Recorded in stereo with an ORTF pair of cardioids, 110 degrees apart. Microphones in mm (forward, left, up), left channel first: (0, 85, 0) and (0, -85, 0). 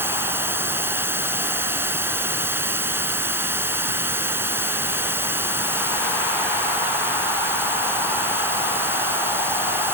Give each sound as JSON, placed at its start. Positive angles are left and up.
{"t": 0.0, "sound": "running water", "azimuth_deg": -15}